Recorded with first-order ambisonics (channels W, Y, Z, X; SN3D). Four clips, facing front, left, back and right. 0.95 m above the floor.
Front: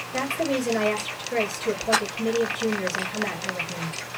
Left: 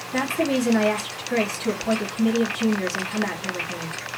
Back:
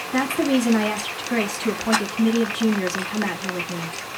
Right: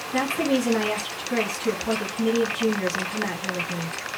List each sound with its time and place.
0.1 s a woman speaking: 175° left, 1.7 m